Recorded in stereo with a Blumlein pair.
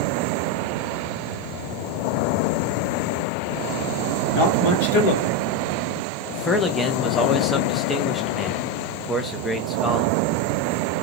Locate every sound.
4.3 s a man speaking: 50° left, 0.9 m
6.3 s a man speaking: 10° left, 0.6 m